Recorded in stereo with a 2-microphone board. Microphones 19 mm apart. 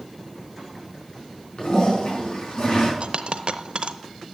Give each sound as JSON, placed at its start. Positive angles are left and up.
{"t": 1.6, "sound": "a toilet flushing", "side_deg": 55, "distance_m": 4.5}
{"t": 3.0, "sound": "a dropped coin", "side_deg": -55, "distance_m": 0.7}